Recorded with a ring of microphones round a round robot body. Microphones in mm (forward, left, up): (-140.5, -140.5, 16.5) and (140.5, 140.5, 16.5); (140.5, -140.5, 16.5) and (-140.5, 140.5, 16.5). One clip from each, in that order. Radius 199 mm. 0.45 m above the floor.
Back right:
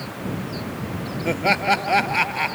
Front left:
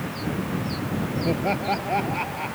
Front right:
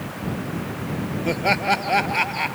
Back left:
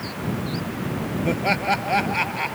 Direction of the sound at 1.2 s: 125° right.